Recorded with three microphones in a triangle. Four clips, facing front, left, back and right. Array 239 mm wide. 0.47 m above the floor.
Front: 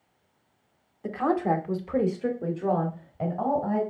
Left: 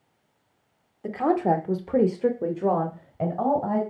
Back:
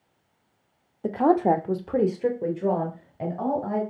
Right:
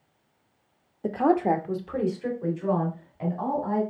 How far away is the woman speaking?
About 0.9 m.